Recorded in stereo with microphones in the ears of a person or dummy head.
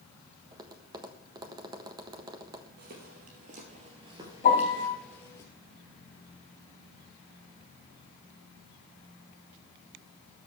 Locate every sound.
0.5 s tapping: 25° right (ahead or behind), 1.4 m
2.8 s footsteps: 50° right (ahead or behind), 3 m; by 5.4 s 15° left (ahead or behind), 2.5 m
4.4 s a piano: 35° left (ahead or behind), 1.8 m